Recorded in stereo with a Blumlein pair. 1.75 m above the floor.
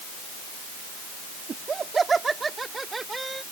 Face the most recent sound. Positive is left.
turn(degrees=-5)